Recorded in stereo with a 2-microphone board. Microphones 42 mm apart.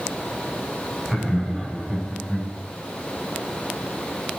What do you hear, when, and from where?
1.1 s laughter: 5° right (ahead or behind), 4.5 m; by 2.5 s 10° left (ahead or behind), 5.5 m